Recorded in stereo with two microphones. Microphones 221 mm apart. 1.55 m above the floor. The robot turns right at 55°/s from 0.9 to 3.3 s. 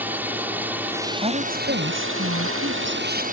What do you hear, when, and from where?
0.0 s a drone: 170° right; by 3.3 s 40° right
1.2 s a woman speaking: 155° right; by 3.2 s 45° right